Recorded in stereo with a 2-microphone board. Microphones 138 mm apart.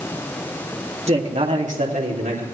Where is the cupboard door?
No cupboard door in this recording.